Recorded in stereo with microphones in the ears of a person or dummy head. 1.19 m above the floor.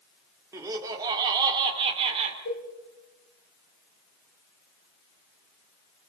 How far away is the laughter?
About 3 m.